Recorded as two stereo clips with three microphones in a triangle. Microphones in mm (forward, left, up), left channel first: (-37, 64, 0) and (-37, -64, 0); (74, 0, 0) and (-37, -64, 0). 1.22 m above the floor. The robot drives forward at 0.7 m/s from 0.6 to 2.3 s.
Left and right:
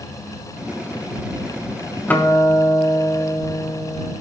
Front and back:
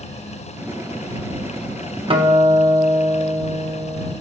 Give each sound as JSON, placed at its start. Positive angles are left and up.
{"t": 2.1, "sound": "a guitar", "azimuth_deg": 165, "distance_m": 1.2}